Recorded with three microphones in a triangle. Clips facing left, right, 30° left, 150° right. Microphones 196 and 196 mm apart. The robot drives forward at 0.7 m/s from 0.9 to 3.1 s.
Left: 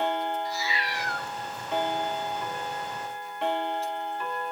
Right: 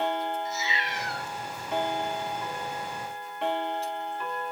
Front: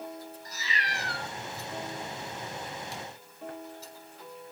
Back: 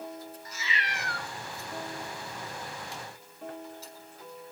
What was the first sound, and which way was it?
A cat meowing, 25° right.